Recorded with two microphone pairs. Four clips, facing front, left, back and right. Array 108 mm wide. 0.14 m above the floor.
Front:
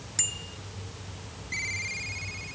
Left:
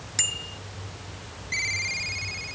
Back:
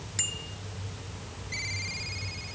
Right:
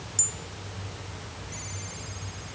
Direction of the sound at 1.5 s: 80° left.